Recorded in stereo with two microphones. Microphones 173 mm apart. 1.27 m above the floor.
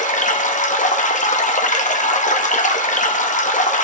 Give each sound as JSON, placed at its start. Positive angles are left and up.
{"t": 0.0, "sound": "running water", "side_deg": 50, "distance_m": 0.9}